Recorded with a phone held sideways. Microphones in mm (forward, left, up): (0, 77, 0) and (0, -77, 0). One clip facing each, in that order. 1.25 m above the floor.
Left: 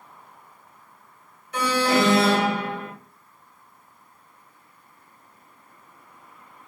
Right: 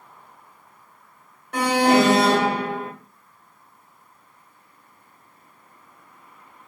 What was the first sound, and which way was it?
An alarm, 70° right (ahead or behind).